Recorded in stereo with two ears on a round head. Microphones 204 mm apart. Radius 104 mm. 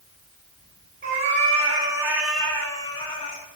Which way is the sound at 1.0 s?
40° right (ahead or behind).